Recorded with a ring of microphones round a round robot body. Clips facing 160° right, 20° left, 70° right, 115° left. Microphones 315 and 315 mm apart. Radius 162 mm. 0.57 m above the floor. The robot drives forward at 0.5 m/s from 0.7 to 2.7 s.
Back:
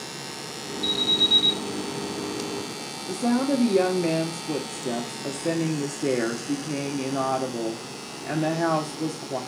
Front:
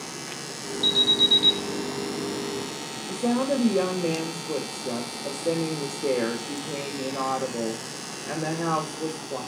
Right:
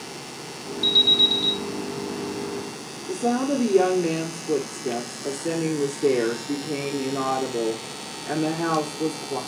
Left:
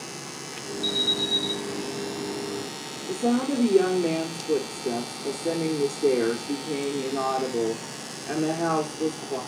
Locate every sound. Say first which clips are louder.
0.8 s an alarm: front 1 dB, right 2 dB; 60° right, 1.9 m; by 1.6 s 75° right, 1.8 m
3.1 s a woman speaking: back 2 dB, right 1 dB; 145° right, 1.4 m